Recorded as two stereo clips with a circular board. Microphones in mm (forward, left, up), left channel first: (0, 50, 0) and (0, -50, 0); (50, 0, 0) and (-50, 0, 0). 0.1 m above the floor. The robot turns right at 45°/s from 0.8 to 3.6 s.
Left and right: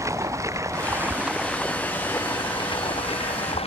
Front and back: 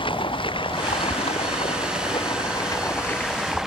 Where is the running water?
30° right; by 3.7 s 95° left.